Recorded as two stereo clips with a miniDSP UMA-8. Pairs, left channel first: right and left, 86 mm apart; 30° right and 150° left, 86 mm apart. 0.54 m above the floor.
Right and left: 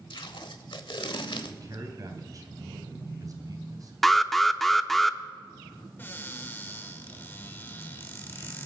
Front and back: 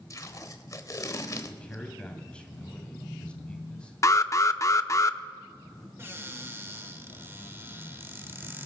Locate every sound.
0.1 s tape being pulled: 75° right, 1.2 m
1.5 s a man speaking: 45° left, 3 m
4.0 s an alarm: 5° right, 0.6 m
6.0 s a cupboard door: 155° right, 1.5 m